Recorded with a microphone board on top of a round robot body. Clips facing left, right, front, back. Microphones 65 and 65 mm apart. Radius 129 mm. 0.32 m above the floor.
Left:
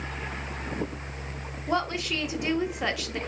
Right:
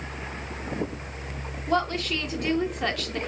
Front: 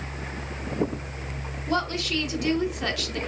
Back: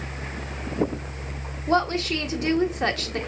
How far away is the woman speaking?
About 1.3 m.